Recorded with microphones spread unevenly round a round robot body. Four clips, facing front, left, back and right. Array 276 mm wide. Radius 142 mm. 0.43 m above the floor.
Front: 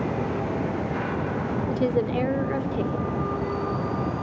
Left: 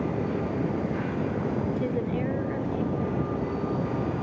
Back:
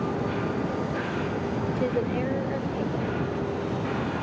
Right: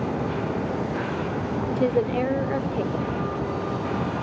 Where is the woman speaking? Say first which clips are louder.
Right 6 dB, front 4 dB; 70° right, 1.1 m.